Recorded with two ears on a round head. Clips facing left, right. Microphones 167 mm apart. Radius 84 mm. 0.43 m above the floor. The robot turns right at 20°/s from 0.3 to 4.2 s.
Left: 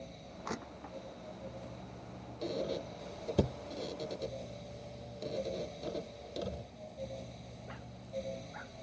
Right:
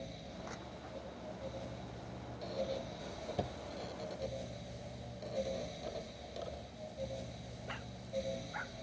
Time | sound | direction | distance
0.5 | crushing | 80° left | ?
2.4 | a squeak | 60° left (ahead or behind) | ?